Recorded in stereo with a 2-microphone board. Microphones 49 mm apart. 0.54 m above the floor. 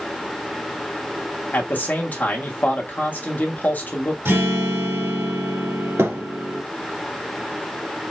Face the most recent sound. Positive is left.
turn(degrees=-75)  # may be behind; listen again after turning